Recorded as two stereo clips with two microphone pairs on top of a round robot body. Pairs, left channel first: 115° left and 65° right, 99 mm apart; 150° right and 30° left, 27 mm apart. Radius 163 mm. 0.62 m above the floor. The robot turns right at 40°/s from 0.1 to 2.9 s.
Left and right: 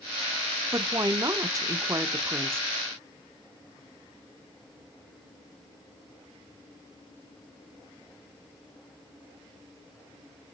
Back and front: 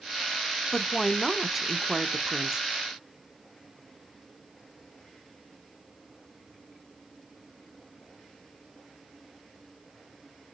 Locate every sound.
0.7 s a woman speaking: 100° right, 0.7 m; by 2.6 s 25° right, 0.7 m